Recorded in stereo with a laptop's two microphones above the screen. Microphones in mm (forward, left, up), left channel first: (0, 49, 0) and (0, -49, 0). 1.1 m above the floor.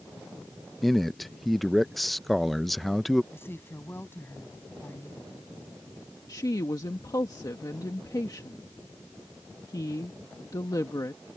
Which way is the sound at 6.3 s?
40° left (ahead or behind).